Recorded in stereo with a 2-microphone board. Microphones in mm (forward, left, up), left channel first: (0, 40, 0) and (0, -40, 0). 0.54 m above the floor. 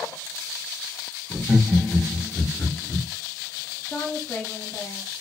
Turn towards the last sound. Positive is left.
turn(degrees=45)  # may be behind; listen again after turning